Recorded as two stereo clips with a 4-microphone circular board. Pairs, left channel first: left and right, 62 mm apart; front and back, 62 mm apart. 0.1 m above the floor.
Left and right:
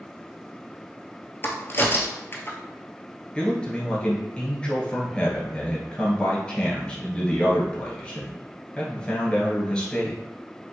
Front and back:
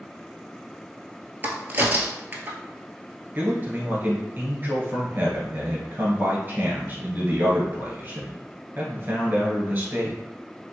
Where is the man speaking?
150° left, 1.3 m.